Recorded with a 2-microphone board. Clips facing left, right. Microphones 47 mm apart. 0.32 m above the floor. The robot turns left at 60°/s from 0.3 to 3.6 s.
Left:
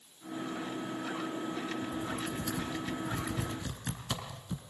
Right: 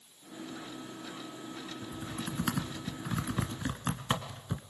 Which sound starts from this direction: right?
Typing on a keyboard, at 1.8 s.